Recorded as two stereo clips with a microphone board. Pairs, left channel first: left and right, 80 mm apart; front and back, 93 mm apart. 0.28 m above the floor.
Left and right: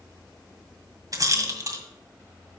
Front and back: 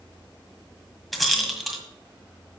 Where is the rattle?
90° right, 1.7 m.